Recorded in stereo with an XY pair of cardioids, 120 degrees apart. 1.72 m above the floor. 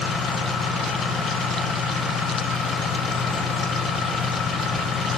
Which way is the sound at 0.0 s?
60° left.